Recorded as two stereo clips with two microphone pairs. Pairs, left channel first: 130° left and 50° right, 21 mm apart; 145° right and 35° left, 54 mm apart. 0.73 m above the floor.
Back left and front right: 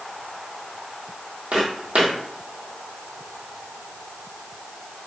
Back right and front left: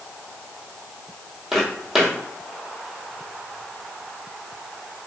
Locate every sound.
1.5 s footsteps: 45° right, 1.3 m